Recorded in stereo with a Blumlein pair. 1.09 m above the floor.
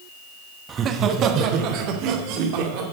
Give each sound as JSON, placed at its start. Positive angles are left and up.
{"t": 0.7, "sound": "laughter", "azimuth_deg": -20, "distance_m": 1.0}